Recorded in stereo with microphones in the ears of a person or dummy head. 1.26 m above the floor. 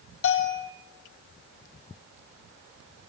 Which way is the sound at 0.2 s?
70° left (ahead or behind).